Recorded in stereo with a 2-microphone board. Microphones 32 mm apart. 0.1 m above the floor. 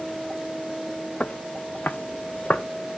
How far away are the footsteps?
About 1.0 m.